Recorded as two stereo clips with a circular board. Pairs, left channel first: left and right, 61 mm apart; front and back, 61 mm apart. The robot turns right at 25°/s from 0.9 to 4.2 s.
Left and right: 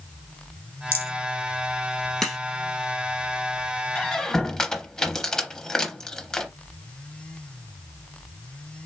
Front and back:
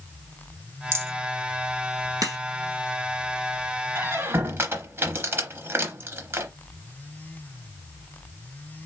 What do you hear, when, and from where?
0.9 s a rattle: 145° left, 1.6 m; by 1.1 s 150° left, 1.6 m
2.2 s a crack: 175° left, 1.8 m; by 2.4 s straight behind, 1.8 m
4.0 s a squeak: 160° left, 0.7 m; by 6.5 s 165° left, 0.7 m